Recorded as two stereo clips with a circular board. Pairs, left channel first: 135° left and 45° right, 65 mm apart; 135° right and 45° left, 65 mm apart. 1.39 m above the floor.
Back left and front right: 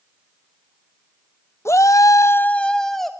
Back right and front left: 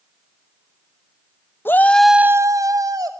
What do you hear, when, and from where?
1.6 s a shout: 175° left, 0.9 m; by 3.1 s 45° left, 1.5 m